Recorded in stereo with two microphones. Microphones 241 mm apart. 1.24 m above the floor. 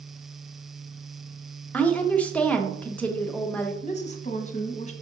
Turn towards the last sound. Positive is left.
turn(degrees=30)  # may be behind; listen again after turning